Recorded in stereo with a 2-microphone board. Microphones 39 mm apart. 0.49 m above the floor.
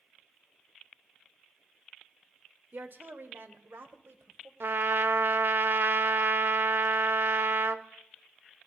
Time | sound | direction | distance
2.7 | a woman speaking | 50° right (ahead or behind) | 1.2 m
4.6 | a trumpet | 60° right (ahead or behind) | 0.7 m